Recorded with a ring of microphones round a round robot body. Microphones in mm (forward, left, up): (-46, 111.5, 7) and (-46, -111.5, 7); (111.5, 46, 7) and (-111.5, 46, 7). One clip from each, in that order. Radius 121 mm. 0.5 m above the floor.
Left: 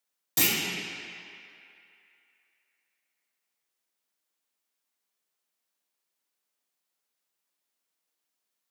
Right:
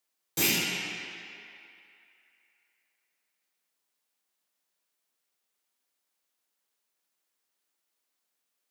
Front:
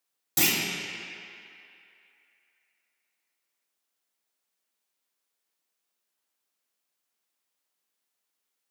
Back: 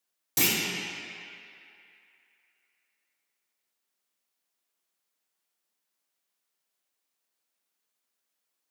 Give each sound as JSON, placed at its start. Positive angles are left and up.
{"t": 0.4, "sound": "a clunk", "azimuth_deg": 100, "distance_m": 1.2}